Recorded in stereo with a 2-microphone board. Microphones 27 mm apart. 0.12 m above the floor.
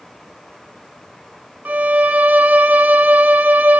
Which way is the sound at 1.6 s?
70° right (ahead or behind).